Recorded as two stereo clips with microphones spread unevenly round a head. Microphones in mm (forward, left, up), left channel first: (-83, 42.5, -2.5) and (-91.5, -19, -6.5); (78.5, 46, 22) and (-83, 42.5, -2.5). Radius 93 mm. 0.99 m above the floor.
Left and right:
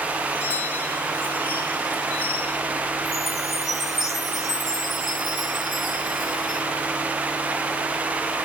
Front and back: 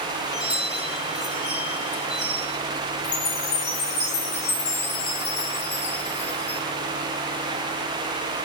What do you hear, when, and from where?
0.3 s a chime: 60° left, 9 m
3.0 s a chime: 10° left, 5.5 m